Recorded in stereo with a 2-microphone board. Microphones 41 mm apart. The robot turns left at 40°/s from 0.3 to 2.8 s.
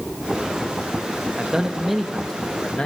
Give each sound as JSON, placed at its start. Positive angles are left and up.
{"t": 1.4, "sound": "a man speaking", "azimuth_deg": -155, "distance_m": 1.4}